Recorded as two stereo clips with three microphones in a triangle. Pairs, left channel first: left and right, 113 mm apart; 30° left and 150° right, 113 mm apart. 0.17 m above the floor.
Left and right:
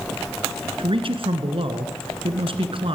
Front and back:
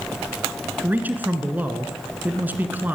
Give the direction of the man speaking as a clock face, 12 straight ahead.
3 o'clock.